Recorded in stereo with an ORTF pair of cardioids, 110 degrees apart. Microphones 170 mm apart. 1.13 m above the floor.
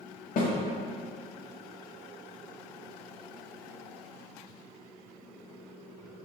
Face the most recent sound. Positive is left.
turn(degrees=55)